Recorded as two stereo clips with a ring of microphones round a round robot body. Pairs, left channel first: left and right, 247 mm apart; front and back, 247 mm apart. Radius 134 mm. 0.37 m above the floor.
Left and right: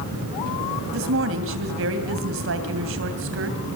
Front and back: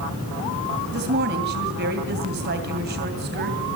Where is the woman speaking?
130° right, 2.5 m.